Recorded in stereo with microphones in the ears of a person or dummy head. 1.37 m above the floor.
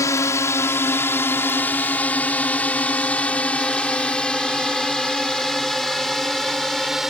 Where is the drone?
15° left (ahead or behind); by 7.1 s centre (ahead or behind).